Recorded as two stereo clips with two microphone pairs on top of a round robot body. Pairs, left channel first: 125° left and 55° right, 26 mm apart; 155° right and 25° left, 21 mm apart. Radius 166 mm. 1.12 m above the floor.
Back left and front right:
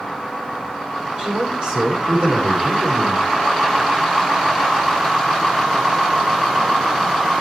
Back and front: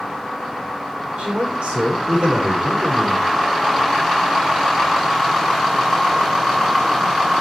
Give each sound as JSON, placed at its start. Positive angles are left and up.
{"t": 1.2, "sound": "a man speaking", "azimuth_deg": 5, "distance_m": 6.0}